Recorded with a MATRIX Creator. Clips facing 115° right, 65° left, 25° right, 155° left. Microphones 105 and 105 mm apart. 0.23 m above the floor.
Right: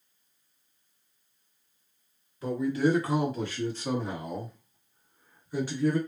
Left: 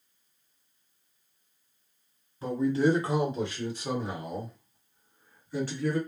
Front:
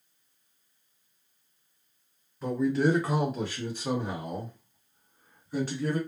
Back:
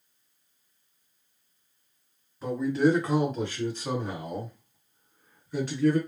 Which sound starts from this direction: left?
A man speaking, at 2.4 s.